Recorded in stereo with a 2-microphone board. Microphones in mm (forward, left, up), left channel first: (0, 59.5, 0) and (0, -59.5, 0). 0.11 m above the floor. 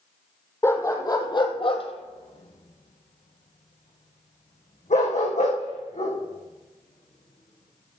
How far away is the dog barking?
About 1.5 m.